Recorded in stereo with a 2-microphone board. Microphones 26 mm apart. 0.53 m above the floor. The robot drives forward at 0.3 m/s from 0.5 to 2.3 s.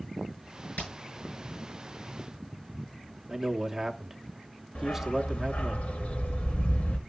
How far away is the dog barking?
About 0.7 m.